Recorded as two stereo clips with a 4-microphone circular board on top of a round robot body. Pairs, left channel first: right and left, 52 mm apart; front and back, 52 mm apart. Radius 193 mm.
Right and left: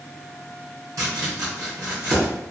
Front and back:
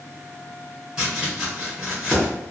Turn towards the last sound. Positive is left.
turn(degrees=110)